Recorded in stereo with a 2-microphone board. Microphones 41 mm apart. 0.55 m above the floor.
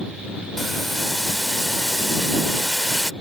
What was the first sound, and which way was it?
Boiling, 5° left (ahead or behind).